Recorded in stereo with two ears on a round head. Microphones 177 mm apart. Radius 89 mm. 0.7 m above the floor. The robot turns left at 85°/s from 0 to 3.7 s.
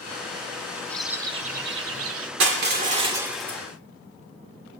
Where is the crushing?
95° right, 2.0 m; by 3.6 s 165° left, 2.0 m.